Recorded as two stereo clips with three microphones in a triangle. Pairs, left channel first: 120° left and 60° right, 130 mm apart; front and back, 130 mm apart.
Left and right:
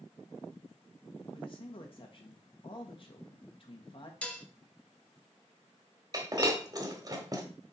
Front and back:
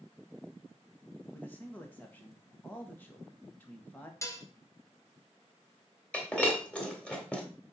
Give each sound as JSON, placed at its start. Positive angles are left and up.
{"t": 1.3, "sound": "a man speaking", "azimuth_deg": 75, "distance_m": 1.5}
{"t": 4.2, "sound": "dishes clattering", "azimuth_deg": 50, "distance_m": 0.8}
{"t": 6.1, "sound": "breaking glass", "azimuth_deg": -75, "distance_m": 1.3}